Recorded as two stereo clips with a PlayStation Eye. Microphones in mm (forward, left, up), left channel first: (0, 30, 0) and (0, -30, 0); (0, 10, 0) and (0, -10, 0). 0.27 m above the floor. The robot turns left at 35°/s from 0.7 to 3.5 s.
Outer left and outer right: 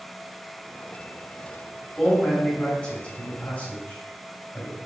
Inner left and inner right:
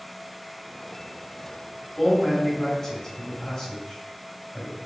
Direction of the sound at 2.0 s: 10° left (ahead or behind).